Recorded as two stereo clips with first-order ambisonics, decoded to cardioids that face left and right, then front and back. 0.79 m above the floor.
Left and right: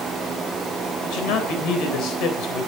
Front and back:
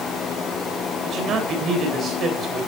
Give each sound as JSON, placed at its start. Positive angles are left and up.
{"t": 1.0, "sound": "a man speaking", "azimuth_deg": 125, "distance_m": 3.5}